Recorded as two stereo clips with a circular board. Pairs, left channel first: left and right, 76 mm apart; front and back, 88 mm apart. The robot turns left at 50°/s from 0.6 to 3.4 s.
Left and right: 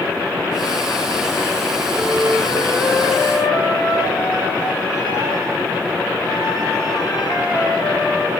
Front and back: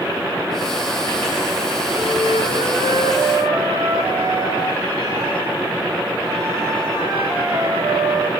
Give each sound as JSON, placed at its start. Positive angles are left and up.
{"t": 1.9, "sound": "a flute", "azimuth_deg": -160, "distance_m": 8.0}